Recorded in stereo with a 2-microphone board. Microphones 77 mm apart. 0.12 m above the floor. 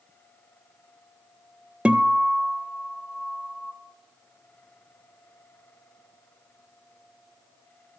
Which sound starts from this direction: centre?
A guitar, at 1.9 s.